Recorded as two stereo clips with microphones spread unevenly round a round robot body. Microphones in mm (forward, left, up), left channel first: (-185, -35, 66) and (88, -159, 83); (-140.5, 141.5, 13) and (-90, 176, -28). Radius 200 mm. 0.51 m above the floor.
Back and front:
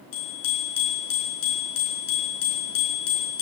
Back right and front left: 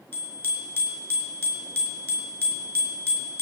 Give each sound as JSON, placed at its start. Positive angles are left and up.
{"t": 0.1, "sound": "a bicycle bell", "azimuth_deg": 160, "distance_m": 5.0}